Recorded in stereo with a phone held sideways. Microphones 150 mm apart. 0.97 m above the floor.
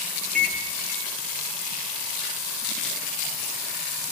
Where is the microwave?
70° right (ahead or behind), 1.1 m.